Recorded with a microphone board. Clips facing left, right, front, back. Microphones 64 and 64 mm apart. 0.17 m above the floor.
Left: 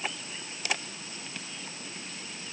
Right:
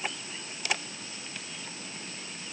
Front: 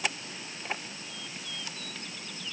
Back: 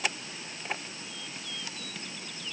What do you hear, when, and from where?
Only background noise.